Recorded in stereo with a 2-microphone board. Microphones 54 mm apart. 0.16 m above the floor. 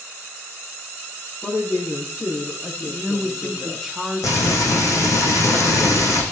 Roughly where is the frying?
Left.